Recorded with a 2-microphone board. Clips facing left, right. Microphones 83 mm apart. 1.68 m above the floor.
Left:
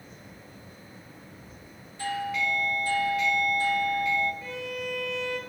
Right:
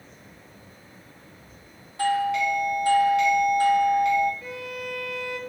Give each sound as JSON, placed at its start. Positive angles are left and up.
{"t": 2.0, "sound": "a doorbell", "side_deg": -70, "distance_m": 0.6}
{"t": 4.4, "sound": "a violin", "side_deg": -5, "distance_m": 0.7}